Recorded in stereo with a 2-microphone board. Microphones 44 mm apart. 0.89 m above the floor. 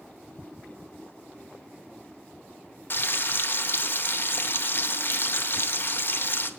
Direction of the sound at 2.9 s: 55° left (ahead or behind).